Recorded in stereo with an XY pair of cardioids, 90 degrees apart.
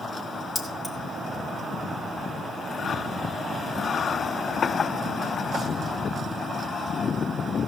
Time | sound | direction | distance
0.6 | keys jangling | 20° left | 2.5 m